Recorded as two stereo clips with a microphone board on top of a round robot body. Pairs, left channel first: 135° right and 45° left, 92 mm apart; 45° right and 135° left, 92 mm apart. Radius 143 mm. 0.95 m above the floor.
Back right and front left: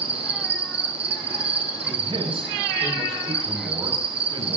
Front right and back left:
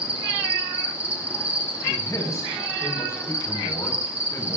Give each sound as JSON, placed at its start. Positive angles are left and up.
{"t": 0.0, "sound": "an insect", "azimuth_deg": 60, "distance_m": 1.0}
{"t": 1.9, "sound": "a man speaking", "azimuth_deg": 15, "distance_m": 5.5}